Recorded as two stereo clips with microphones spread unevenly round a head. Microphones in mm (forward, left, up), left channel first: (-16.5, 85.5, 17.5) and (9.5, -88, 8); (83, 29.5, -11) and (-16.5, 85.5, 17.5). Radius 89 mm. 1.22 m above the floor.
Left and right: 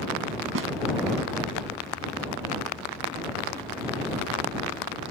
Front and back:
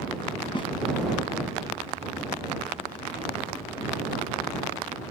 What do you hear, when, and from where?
0.6 s a snare drum: 95° right